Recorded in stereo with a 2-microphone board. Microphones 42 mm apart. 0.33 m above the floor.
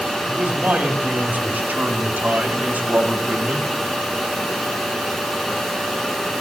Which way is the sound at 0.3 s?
50° right (ahead or behind).